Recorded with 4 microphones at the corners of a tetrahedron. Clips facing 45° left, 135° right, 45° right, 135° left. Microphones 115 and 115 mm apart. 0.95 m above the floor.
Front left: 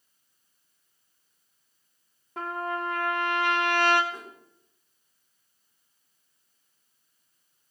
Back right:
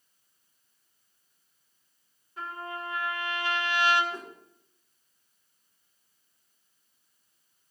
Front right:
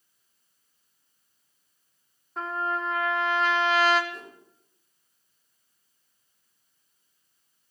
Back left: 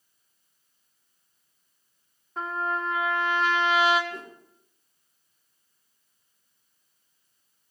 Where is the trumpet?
45° left, 1.8 m.